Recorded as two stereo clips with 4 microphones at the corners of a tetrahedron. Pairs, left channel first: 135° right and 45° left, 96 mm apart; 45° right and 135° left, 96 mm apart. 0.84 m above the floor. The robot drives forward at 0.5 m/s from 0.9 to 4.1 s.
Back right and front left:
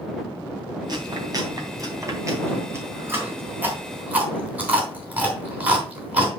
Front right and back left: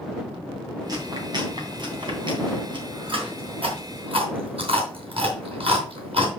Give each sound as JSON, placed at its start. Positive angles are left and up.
{"t": 0.9, "sound": "chewing", "azimuth_deg": 90, "distance_m": 3.0}